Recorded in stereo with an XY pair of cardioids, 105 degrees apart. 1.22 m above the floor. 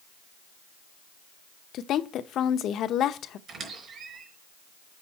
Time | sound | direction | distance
1.7 | a woman speaking | 70° left | 0.9 m
3.5 | a squeak | 60° right | 4.5 m